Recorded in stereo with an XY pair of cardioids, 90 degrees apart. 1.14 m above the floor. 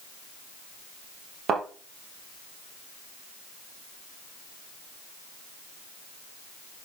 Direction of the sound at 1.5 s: 65° right.